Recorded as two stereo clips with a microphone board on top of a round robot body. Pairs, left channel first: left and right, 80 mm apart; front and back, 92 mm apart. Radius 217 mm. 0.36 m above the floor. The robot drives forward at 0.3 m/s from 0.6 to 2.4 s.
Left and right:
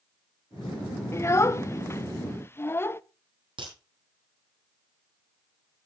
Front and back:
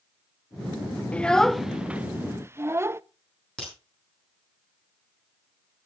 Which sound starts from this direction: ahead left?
A child speaking, at 1.1 s.